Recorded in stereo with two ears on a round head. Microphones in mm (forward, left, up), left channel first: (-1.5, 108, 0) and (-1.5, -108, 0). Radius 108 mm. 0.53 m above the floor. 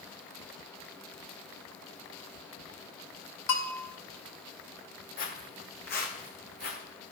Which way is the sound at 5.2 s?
35° left (ahead or behind).